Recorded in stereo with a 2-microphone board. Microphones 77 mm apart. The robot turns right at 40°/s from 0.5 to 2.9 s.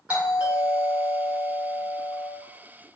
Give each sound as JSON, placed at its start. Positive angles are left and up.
{"t": 0.1, "sound": "a doorbell", "side_deg": -20, "distance_m": 1.3}